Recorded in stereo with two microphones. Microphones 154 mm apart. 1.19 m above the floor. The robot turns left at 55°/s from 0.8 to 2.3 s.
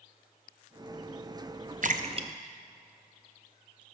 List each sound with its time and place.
1.8 s a splash: 60° right (ahead or behind), 0.7 m; by 3.8 s 30° right (ahead or behind), 0.7 m